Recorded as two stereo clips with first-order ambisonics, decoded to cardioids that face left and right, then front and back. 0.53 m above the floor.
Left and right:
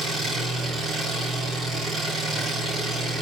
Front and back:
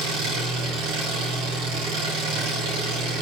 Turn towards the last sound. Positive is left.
turn(degrees=-160)